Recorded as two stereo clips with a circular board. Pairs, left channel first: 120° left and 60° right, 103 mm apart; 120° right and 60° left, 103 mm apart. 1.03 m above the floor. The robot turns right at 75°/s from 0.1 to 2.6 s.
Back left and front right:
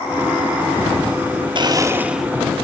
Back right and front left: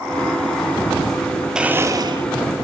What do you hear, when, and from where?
1.6 s a blender: 25° right, 1.4 m; by 2.2 s 30° left, 1.4 m